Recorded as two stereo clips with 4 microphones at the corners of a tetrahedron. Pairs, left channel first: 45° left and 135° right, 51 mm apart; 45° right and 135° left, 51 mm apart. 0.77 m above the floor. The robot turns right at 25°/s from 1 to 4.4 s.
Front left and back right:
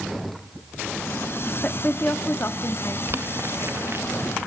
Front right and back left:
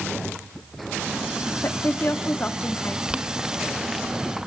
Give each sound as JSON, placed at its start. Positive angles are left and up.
{"t": 1.6, "sound": "a woman speaking", "azimuth_deg": -15, "distance_m": 1.2}
{"t": 3.1, "sound": "boiling", "azimuth_deg": -160, "distance_m": 0.9}